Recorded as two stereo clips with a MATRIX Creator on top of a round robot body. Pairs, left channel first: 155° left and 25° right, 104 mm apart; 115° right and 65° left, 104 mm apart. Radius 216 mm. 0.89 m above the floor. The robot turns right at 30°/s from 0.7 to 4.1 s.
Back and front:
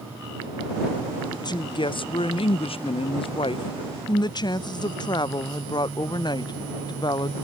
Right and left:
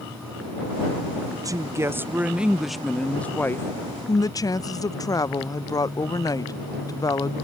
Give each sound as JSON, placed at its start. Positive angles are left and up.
{"t": 1.3, "sound": "a woman speaking", "azimuth_deg": 115}